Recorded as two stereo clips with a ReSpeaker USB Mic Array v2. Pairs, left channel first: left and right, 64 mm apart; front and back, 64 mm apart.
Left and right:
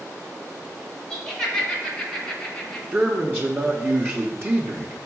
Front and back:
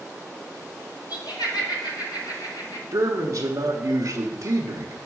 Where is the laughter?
10° left, 3 m; by 2.8 s 15° left, 1.7 m.